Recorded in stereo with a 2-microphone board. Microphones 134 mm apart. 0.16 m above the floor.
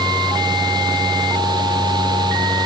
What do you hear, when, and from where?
Only background noise.